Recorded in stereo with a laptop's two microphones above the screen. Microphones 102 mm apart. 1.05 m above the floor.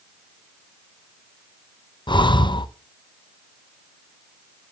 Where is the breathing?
50° left (ahead or behind), 0.5 m.